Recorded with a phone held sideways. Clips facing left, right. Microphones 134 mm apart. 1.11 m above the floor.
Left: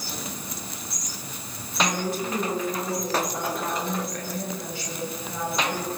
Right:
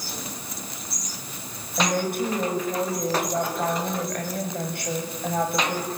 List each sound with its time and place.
1.8 s a woman speaking: 60° right (ahead or behind), 7 m